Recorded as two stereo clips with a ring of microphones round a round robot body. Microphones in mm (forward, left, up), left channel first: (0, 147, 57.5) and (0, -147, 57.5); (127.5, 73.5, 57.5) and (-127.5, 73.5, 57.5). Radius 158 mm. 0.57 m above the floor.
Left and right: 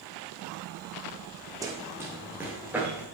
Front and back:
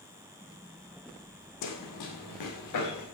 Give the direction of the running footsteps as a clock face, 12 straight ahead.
12 o'clock.